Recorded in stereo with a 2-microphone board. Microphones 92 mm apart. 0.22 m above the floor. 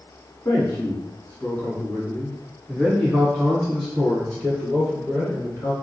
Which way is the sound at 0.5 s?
35° left (ahead or behind).